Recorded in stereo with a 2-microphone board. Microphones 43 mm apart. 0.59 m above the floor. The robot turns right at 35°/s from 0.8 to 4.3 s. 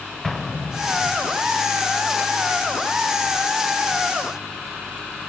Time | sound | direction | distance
0.2 | an explosion | 5° left (ahead or behind) | 1.0 m